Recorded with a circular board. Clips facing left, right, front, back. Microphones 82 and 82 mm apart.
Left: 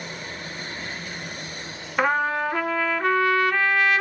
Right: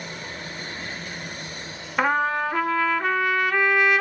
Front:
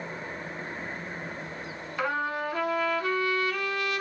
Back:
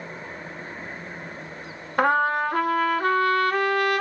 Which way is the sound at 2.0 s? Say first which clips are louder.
Even, back 9 dB; straight behind.